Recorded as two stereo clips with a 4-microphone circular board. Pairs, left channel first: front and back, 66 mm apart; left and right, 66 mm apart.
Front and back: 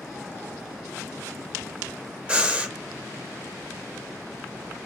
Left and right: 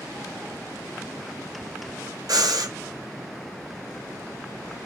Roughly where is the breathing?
Right.